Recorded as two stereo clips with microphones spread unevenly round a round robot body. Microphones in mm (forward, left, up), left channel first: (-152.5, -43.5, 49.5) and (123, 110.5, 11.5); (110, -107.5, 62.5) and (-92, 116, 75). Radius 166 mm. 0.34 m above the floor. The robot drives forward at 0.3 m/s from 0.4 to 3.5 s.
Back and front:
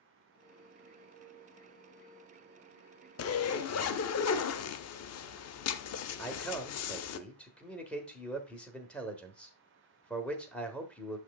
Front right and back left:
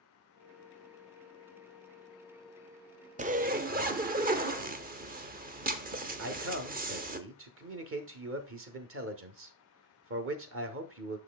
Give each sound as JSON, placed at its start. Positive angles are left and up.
{"t": 3.2, "sound": "a zipper", "azimuth_deg": -175, "distance_m": 0.6}
{"t": 6.2, "sound": "a man speaking", "azimuth_deg": 115, "distance_m": 1.1}